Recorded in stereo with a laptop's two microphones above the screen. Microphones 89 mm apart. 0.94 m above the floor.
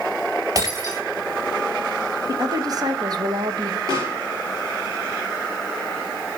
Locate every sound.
0.6 s breaking glass: 45° right (ahead or behind), 3 m
2.3 s a woman speaking: 45° right (ahead or behind), 0.7 m
3.9 s a pop: 40° right (ahead or behind), 4 m